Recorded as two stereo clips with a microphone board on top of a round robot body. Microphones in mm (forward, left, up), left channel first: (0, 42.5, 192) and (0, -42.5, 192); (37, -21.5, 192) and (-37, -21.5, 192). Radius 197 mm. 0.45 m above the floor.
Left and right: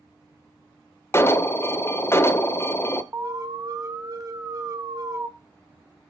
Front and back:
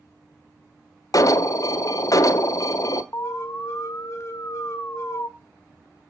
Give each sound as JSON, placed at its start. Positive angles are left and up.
{"t": 1.1, "sound": "an alarm", "azimuth_deg": 30, "distance_m": 0.8}
{"t": 3.1, "sound": "an alarm", "azimuth_deg": -45, "distance_m": 1.2}